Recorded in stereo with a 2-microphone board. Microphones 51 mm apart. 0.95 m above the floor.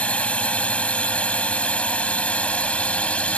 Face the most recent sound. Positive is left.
turn(degrees=25)  # may be behind; listen again after turning